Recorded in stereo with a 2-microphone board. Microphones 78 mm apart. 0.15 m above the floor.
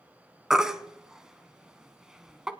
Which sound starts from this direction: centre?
A baby crying, at 0.5 s.